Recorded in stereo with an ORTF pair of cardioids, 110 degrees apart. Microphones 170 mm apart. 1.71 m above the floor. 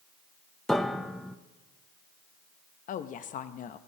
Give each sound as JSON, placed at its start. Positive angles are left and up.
{"t": 0.7, "sound": "a piano", "azimuth_deg": 0, "distance_m": 0.5}
{"t": 2.9, "sound": "a woman speaking", "azimuth_deg": 50, "distance_m": 0.6}